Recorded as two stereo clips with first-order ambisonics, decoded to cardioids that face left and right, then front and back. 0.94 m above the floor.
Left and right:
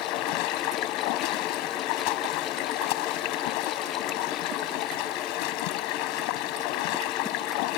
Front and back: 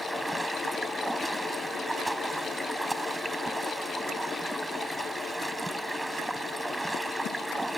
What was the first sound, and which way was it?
Running water, 95° left.